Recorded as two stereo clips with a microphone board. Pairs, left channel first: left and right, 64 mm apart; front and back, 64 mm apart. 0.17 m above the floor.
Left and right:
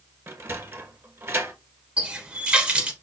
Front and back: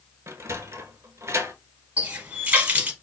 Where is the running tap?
140° right, 0.8 m.